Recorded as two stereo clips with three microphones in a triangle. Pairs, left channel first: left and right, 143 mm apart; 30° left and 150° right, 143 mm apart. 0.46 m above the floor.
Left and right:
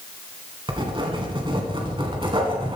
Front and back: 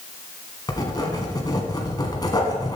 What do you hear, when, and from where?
0.7 s writing: 35° right, 1.9 m